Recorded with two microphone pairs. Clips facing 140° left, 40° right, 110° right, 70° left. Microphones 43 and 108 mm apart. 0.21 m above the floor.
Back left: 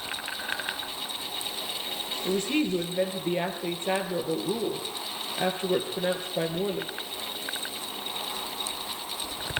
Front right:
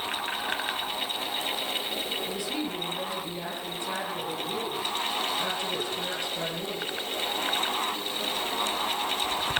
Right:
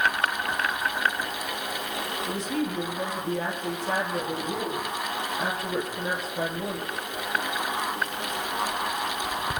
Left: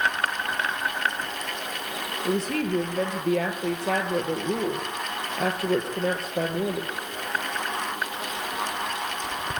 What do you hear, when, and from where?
2.2 s a woman speaking: 90° left, 5.5 m